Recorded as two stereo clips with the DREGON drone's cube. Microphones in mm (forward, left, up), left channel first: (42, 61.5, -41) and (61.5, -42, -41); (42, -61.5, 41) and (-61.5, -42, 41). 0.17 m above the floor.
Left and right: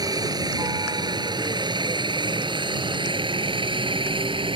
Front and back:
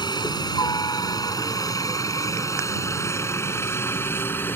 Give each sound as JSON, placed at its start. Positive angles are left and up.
{"t": 0.0, "sound": "a helicopter", "azimuth_deg": -40}